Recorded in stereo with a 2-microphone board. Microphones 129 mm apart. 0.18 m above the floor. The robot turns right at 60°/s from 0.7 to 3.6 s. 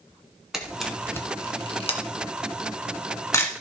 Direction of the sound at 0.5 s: 5° right (ahead or behind).